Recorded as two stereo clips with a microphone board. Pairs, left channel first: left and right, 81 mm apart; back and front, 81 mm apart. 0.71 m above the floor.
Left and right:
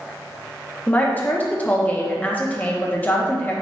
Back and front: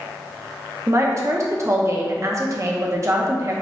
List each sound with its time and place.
0.9 s a woman speaking: 30° left, 0.8 m